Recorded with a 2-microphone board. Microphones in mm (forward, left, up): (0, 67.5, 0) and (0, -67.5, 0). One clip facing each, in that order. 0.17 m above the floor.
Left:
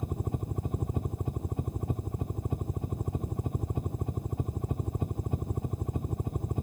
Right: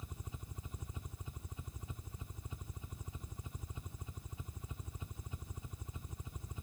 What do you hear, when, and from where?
0.0 s a helicopter: 55° left (ahead or behind)